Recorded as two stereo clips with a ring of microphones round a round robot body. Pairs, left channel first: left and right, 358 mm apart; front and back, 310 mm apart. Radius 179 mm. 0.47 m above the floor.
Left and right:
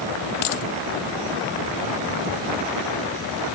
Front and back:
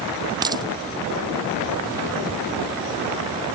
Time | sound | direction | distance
0.4 | a dropped coin | 105° left | ?